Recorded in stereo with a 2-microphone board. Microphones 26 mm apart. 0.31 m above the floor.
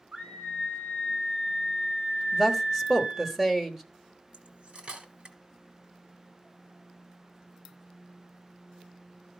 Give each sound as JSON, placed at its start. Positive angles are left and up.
{"t": 0.1, "sound": "a scream", "side_deg": -65, "distance_m": 2.5}
{"t": 2.3, "sound": "a woman speaking", "side_deg": -15, "distance_m": 1.2}
{"t": 4.3, "sound": "cutlery clinking", "side_deg": -55, "distance_m": 1.4}